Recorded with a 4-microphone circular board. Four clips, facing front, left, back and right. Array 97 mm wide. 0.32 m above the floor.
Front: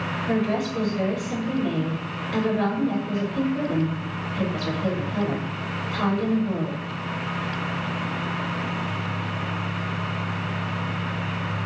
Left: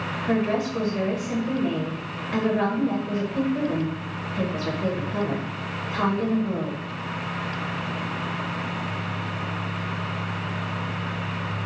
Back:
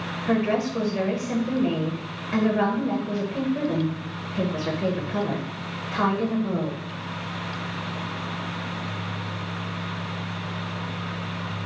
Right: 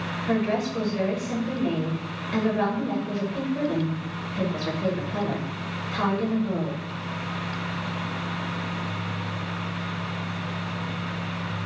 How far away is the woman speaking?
About 0.9 m.